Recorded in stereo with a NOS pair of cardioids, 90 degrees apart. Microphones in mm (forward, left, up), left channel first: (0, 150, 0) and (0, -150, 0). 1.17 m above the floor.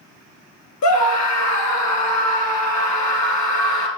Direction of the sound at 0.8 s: 65° left.